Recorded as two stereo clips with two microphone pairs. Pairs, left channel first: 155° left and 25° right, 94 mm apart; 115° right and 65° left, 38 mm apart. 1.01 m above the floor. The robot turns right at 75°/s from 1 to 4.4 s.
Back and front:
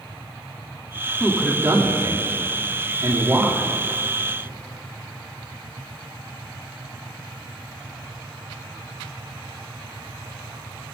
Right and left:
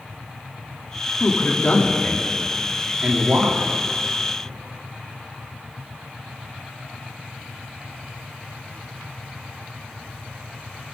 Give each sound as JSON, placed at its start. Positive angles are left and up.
{"t": 1.2, "sound": "a man speaking", "azimuth_deg": -120, "distance_m": 2.5}